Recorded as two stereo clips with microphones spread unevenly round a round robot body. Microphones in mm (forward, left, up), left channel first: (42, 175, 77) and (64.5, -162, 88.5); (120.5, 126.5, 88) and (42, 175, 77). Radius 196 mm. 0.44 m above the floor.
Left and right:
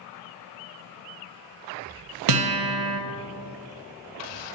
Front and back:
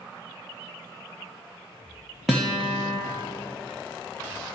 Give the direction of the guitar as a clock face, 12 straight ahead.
4 o'clock.